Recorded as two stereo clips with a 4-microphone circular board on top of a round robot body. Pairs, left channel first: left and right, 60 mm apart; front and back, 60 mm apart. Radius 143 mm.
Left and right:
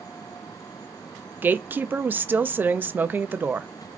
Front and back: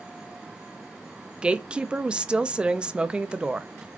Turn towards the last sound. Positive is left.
turn(degrees=-120)